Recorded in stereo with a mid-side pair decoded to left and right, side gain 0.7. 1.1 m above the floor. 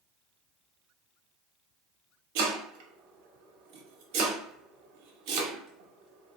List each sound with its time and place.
2.4 s chopping: 65° right, 1.1 m